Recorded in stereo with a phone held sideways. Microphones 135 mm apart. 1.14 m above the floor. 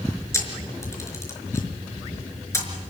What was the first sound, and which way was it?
A camera shutter, 20° left (ahead or behind).